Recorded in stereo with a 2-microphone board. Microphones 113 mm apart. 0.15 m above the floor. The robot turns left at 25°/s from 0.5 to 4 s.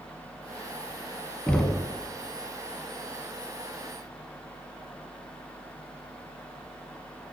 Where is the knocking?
10° left (ahead or behind), 0.8 m.